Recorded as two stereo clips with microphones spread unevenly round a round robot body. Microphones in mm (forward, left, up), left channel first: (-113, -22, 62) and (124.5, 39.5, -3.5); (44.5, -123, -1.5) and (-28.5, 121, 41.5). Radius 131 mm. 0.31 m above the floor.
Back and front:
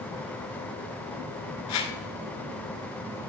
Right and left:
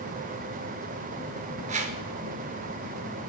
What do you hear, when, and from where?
1.7 s a whoosh: 170° left, 1.7 m